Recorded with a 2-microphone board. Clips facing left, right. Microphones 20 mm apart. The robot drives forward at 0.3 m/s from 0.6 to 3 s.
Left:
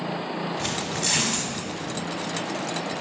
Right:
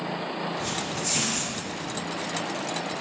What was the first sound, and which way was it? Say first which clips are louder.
Tearing paper: left 2 dB; 65° left (ahead or behind).